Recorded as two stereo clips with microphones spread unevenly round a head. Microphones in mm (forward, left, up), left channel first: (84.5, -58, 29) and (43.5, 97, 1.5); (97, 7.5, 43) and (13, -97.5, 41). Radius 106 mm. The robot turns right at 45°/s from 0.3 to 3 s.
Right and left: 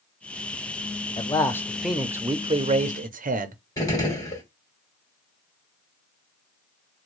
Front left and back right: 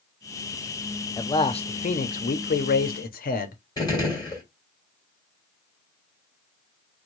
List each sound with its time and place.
1.2 s a man speaking: 15° right, 0.7 m; by 3.5 s 70° left, 0.7 m
3.8 s a gunshot: 10° right, 2.5 m